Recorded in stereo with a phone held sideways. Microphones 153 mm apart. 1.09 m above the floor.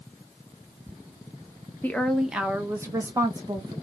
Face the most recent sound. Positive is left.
turn(degrees=-30)  # may be behind; listen again after turning